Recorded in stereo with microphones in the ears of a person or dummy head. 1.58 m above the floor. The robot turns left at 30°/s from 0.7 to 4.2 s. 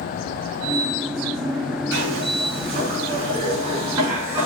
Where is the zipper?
95° right, 3.5 m; by 4.5 s 165° right, 3.5 m.